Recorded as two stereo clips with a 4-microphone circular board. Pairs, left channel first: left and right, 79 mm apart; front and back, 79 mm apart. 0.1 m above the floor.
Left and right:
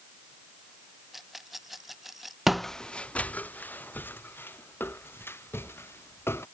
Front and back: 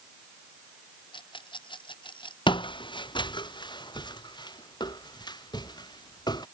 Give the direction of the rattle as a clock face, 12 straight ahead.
12 o'clock.